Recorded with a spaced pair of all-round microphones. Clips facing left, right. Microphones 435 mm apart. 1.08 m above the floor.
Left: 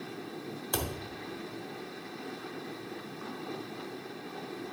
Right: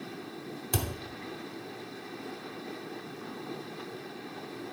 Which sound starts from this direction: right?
A thud, at 0.7 s.